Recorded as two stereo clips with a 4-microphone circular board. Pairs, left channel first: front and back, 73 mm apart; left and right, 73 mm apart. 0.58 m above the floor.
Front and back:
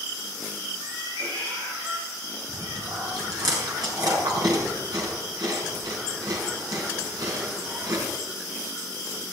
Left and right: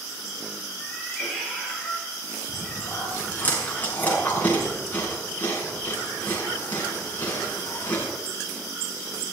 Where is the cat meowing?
175° left, 8 m.